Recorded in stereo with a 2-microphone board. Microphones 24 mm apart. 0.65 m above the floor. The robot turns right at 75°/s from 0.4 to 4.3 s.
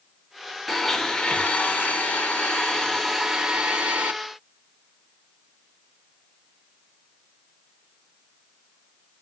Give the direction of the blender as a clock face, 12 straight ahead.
12 o'clock.